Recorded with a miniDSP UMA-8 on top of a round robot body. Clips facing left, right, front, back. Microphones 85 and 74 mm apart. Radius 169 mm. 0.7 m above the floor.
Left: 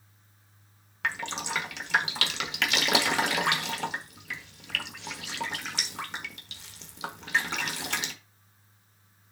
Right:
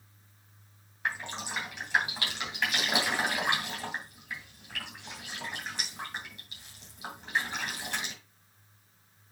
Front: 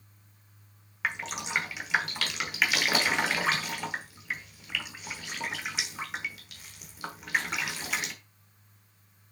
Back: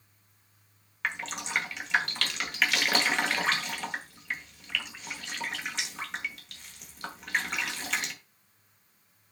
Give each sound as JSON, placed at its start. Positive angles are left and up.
{"t": 1.0, "sound": "dripping", "azimuth_deg": 85, "distance_m": 1.2}